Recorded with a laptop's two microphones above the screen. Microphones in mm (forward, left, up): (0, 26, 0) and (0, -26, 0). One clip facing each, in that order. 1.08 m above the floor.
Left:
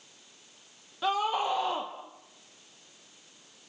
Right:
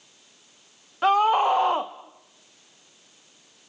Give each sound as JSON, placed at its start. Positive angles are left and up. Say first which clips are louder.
{"t": 1.0, "sound": "a scream", "louder": "right 9 dB", "side_deg": -55, "distance_m": 0.9}